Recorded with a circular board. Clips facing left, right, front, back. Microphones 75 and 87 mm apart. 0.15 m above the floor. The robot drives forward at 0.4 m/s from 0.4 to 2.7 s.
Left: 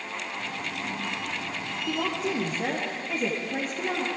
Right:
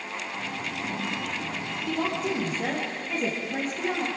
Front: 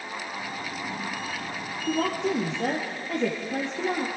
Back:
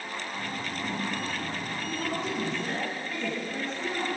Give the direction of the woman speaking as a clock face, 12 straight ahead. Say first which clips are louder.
Right 1 dB, front 8 dB; 12 o'clock.